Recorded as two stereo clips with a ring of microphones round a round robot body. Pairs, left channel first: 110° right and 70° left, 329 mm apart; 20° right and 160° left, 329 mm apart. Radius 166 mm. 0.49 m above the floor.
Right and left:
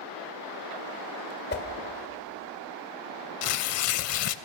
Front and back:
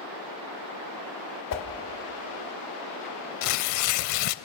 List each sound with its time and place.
1.5 s a whoosh: 55° right, 1.9 m
3.4 s tearing paper: 65° right, 0.6 m